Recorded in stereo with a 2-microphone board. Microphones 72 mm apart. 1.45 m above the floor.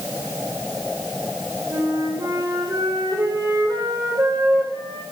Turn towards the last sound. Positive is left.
turn(degrees=-60)  # may be behind; listen again after turning